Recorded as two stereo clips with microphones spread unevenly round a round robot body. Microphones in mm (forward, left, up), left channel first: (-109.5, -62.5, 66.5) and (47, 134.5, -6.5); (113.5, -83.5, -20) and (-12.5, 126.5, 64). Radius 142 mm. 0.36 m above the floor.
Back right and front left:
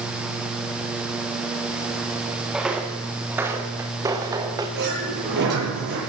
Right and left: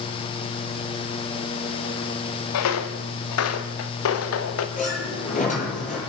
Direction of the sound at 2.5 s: 40° right.